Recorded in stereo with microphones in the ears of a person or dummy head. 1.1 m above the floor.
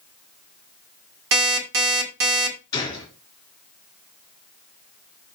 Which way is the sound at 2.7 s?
25° left (ahead or behind).